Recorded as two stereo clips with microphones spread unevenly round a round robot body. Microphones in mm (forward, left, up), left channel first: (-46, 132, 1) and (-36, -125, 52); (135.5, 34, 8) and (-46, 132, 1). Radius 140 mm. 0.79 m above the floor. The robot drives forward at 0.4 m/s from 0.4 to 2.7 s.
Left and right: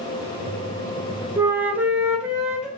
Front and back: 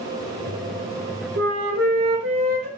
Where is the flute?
165° right, 0.5 m; by 2.7 s 170° right, 1.0 m.